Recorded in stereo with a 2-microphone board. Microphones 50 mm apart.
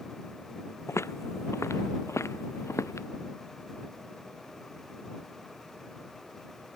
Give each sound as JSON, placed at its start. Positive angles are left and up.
{"t": 0.9, "sound": "footsteps", "side_deg": 65}